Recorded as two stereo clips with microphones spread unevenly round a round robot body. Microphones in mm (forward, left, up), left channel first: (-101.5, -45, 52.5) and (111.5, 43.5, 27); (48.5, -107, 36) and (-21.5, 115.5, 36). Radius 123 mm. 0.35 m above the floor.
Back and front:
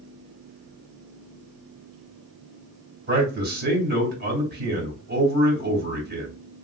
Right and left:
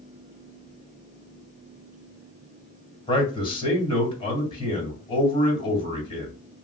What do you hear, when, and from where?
3.1 s a man speaking: 5° right, 2.5 m